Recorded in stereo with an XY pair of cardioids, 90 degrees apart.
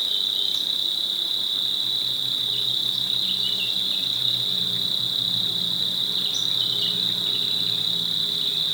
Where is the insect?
15° right, 1.8 m.